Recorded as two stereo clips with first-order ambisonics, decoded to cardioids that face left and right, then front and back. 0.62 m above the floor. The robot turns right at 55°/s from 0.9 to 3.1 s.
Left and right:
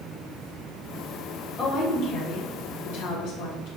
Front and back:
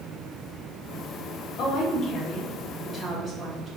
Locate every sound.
1.6 s a woman speaking: 25° left, 1.4 m; by 3.7 s 110° left, 1.4 m